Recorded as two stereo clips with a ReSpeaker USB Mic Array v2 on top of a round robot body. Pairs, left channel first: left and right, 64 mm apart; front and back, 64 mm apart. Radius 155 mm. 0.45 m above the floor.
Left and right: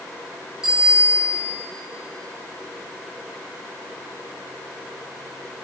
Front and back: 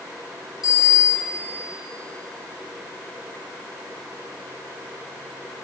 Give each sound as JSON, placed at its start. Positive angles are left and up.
{"t": 0.6, "sound": "a bicycle bell", "azimuth_deg": -10, "distance_m": 6.5}